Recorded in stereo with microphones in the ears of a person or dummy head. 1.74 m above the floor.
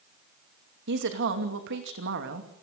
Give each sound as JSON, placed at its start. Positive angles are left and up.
{"t": 0.9, "sound": "a woman speaking", "side_deg": -60, "distance_m": 2.5}